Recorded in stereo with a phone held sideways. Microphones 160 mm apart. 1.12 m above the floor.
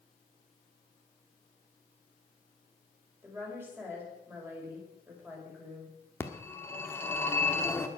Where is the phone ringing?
15° left (ahead or behind), 1.2 m.